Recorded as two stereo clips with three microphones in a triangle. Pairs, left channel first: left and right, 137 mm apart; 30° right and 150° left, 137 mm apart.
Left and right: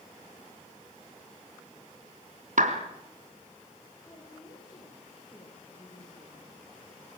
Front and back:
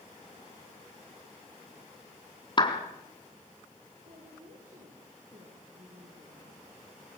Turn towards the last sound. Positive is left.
turn(degrees=145)